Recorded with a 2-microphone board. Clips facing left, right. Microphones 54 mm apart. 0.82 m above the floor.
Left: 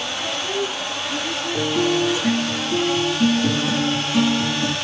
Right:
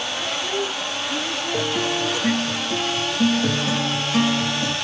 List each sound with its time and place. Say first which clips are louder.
0.2 s a woman speaking: left 1 dB; 25° right (ahead or behind), 1.9 m; by 2.5 s 45° right (ahead or behind), 1.2 m
1.5 s a guitar: left 4 dB; 75° right (ahead or behind), 2 m